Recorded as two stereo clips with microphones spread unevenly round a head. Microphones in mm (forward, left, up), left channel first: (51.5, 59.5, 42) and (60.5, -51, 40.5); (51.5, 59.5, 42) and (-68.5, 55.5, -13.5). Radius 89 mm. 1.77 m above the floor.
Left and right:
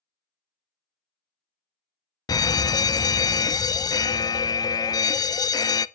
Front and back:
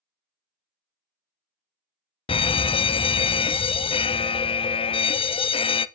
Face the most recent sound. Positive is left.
turn(degrees=60)